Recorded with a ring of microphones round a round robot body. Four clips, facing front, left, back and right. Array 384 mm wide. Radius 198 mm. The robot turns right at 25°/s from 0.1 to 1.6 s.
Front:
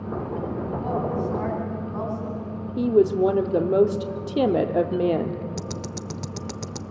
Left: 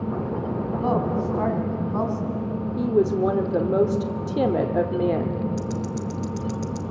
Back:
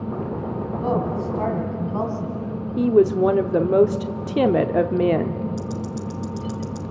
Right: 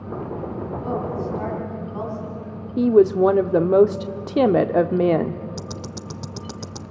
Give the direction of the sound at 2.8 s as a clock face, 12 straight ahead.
4 o'clock.